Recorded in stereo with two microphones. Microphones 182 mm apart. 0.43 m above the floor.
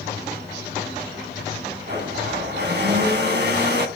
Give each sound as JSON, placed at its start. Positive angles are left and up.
{"t": 1.9, "sound": "a blender", "side_deg": -65, "distance_m": 4.0}